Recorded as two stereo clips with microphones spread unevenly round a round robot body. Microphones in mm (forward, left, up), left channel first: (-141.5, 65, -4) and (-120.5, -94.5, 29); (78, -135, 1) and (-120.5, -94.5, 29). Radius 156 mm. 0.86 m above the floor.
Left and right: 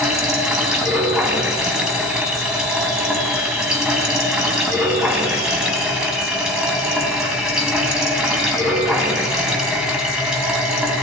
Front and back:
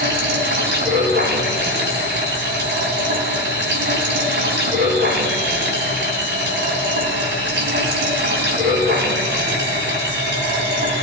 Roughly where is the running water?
Behind.